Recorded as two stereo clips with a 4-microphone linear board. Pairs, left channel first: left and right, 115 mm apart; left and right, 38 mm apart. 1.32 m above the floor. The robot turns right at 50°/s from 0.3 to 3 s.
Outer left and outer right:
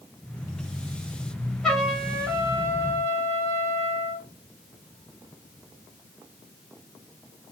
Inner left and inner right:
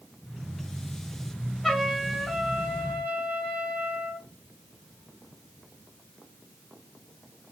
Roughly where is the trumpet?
Behind.